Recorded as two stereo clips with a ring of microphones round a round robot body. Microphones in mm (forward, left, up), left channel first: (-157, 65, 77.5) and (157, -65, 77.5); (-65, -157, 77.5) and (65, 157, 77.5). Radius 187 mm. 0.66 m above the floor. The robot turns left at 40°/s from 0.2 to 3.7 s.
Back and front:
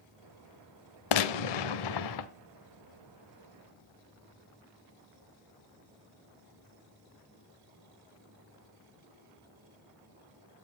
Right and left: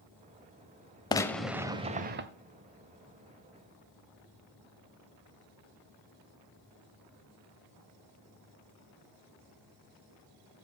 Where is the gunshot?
170° left, 0.7 m; by 2.3 s 125° left, 0.7 m.